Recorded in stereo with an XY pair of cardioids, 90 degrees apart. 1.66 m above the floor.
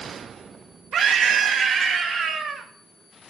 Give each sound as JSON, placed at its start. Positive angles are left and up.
{"t": 0.9, "sound": "a scream", "azimuth_deg": -65, "distance_m": 2.5}